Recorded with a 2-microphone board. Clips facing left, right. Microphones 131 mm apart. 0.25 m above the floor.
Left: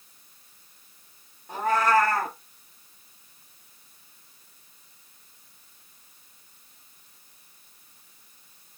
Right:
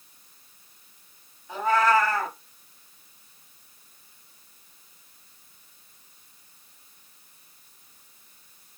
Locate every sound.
1.5 s a cat meowing: 55° left (ahead or behind), 1.2 m